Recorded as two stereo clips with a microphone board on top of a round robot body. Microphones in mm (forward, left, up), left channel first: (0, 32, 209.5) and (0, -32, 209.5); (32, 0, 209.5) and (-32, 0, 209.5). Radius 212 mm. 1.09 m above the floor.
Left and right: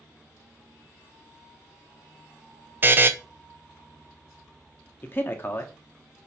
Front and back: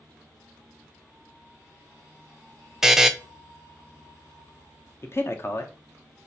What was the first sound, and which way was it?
A buzzer, 105° right.